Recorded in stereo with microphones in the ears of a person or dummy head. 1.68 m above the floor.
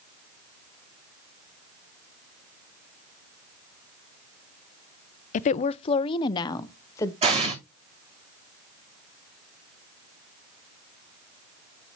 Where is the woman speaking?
40° left (ahead or behind), 0.5 m; by 7.1 s 20° left (ahead or behind), 1.2 m.